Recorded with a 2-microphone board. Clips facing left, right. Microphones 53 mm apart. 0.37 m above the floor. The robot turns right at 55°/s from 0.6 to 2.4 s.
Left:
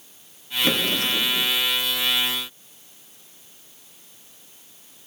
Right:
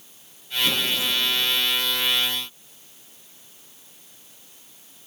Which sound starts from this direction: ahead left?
A drawer, at 0.6 s.